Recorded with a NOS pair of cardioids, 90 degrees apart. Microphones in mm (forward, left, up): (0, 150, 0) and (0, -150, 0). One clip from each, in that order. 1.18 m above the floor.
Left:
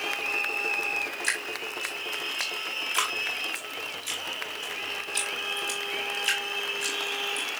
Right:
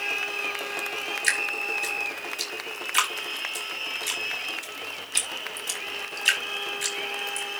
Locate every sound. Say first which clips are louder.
1.2 s dripping: right 5 dB; 45° right, 5.5 m